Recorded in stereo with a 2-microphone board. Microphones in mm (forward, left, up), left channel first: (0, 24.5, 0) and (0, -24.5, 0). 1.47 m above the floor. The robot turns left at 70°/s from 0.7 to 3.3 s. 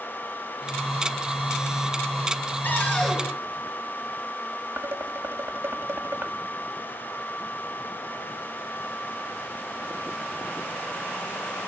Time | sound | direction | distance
2.6 | a cupboard door | 45° left | 6.5 m
4.8 | dishes clattering | 60° right (ahead or behind) | 1.7 m